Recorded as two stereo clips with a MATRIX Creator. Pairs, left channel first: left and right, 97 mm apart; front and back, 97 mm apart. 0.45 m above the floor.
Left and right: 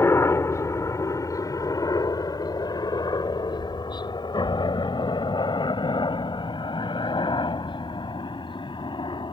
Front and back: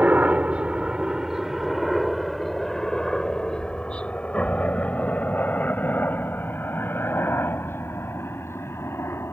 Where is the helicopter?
120° left; by 9.3 s 60° left.